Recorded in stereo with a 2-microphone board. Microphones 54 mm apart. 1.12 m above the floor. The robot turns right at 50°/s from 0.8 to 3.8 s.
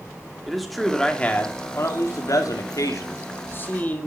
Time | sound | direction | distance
0.5 | a man speaking | straight ahead | 2 m